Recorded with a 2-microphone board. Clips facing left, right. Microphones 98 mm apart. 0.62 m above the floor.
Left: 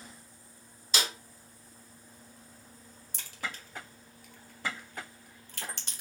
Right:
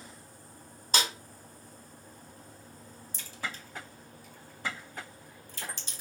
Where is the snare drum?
45° right (ahead or behind), 1.5 m.